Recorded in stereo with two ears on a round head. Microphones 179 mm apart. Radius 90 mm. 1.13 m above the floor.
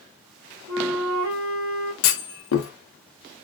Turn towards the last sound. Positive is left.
turn(degrees=70)  # may be behind; listen again after turning